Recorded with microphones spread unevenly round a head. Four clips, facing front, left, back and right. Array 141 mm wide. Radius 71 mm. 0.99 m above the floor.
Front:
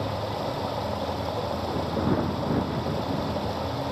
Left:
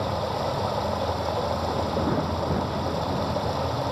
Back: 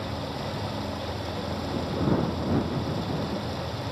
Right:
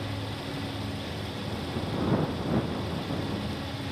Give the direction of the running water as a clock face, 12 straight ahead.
10 o'clock.